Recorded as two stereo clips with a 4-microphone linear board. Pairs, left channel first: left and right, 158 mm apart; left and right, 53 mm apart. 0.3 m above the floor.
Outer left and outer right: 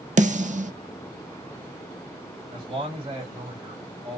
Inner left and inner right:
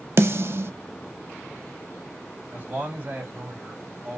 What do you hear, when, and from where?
0.2 s a snare drum: 50° right (ahead or behind), 0.5 m
2.5 s a man speaking: 30° right (ahead or behind), 2 m